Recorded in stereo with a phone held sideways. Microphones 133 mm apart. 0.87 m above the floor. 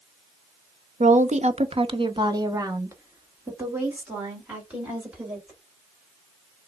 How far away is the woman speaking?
About 0.7 m.